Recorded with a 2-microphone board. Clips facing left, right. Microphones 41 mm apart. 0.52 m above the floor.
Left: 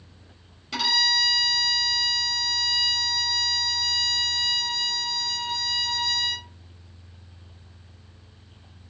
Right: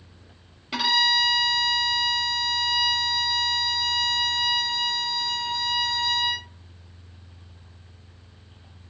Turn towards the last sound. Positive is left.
turn(degrees=-15)  # may be behind; listen again after turning